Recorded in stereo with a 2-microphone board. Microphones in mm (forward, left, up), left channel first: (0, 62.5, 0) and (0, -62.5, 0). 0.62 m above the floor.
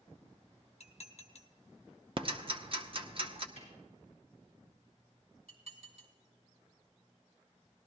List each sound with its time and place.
0.8 s dishes clattering: 60° left (ahead or behind), 0.7 m
2.2 s ticking: 45° right (ahead or behind), 0.7 m
3.6 s a snare drum: 55° right (ahead or behind), 6.5 m
5.5 s dishes clattering: 55° right (ahead or behind), 1.9 m